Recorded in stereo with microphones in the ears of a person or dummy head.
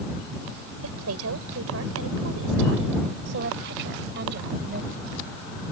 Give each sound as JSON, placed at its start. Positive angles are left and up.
{"t": 0.8, "sound": "a woman speaking", "side_deg": -70}